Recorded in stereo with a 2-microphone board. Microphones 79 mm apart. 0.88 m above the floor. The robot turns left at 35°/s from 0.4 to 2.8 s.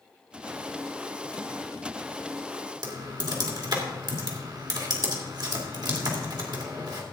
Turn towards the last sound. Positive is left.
turn(degrees=-60)  # may be behind; listen again after turning